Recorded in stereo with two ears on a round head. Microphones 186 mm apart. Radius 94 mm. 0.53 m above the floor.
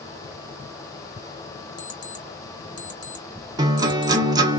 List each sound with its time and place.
1.8 s an alarm clock: 20° left (ahead or behind), 1.2 m
3.6 s a guitar: 20° right (ahead or behind), 0.9 m